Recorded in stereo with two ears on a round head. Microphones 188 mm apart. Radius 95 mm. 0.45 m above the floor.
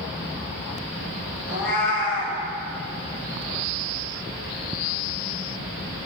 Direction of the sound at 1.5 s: 60° left (ahead or behind).